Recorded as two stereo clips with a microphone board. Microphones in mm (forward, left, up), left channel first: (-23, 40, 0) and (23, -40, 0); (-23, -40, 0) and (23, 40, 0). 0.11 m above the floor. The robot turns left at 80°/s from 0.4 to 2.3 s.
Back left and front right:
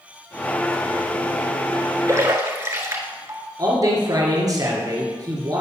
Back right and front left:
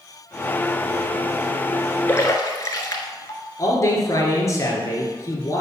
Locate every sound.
2.1 s a splash: 80° right, 1.3 m; by 3.4 s 95° right, 1.3 m
3.6 s a man speaking: 85° right, 2 m